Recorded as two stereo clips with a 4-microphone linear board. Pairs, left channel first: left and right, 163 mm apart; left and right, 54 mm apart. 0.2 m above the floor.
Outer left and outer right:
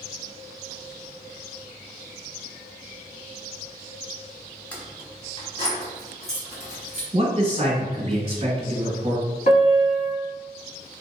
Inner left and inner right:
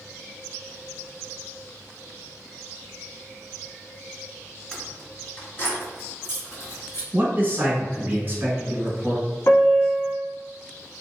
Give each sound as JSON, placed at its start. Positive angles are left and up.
{"t": 4.7, "sound": "keys jangling", "side_deg": 10, "distance_m": 1.0}
{"t": 7.1, "sound": "a man speaking", "side_deg": -35, "distance_m": 1.1}
{"t": 9.5, "sound": "a piano", "side_deg": 50, "distance_m": 0.8}